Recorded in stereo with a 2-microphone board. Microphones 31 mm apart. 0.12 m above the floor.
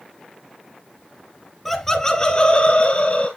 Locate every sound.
1.6 s laughter: centre (ahead or behind), 1.2 m; by 3.3 s 40° left (ahead or behind), 1.8 m